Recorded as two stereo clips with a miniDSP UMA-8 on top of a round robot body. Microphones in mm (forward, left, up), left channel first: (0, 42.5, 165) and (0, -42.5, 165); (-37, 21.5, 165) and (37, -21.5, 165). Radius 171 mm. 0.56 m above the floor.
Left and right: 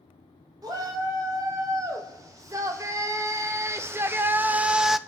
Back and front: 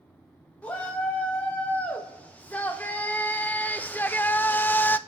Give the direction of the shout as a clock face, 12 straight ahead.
5 o'clock.